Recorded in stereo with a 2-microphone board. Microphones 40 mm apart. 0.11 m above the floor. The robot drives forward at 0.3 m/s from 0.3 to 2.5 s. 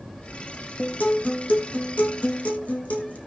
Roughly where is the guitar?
Left.